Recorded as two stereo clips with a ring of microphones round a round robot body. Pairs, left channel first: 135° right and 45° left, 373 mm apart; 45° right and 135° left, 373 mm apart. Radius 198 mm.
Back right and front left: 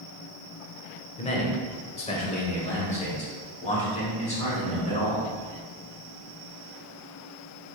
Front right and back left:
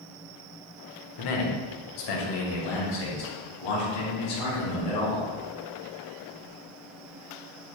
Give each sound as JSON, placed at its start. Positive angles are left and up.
{"t": 1.2, "sound": "a man speaking", "azimuth_deg": -65, "distance_m": 1.4}